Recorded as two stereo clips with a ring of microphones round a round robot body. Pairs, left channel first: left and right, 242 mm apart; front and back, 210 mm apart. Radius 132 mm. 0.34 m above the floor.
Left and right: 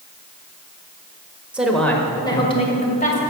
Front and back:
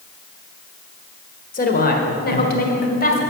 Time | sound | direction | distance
1.5 | a woman speaking | 5° right | 1.7 m